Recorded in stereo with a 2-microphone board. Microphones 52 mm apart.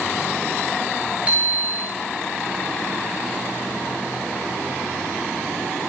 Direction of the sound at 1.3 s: 25° right (ahead or behind).